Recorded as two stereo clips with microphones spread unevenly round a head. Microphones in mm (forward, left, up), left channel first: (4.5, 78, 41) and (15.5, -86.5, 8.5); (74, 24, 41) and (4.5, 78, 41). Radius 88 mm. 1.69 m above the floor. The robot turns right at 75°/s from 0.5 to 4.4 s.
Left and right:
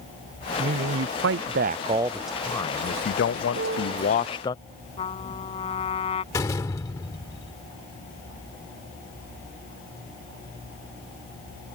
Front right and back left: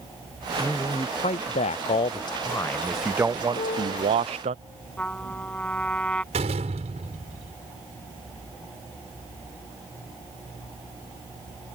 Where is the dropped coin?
No dropped coin in this recording.